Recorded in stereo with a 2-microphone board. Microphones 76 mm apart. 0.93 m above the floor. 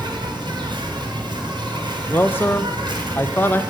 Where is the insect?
75° right (ahead or behind), 2 m.